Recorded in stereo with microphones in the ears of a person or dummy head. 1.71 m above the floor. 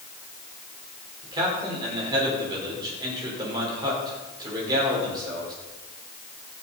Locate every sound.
1.2 s a man speaking: 20° right (ahead or behind), 5.5 m